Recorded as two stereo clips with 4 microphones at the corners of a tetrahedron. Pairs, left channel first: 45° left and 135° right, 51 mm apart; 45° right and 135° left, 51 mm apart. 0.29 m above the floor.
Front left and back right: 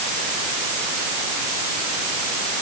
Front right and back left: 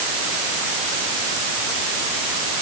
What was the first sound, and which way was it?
Only background noise.